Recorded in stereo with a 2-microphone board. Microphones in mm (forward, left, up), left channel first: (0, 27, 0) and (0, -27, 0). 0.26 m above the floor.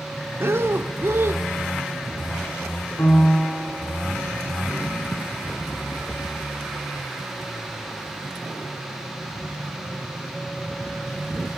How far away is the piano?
About 3 m.